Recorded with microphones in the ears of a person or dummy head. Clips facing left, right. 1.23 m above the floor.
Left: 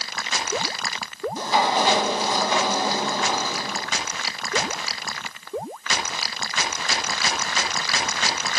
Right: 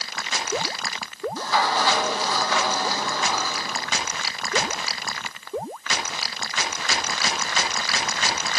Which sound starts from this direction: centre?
A sliding door, at 1.4 s.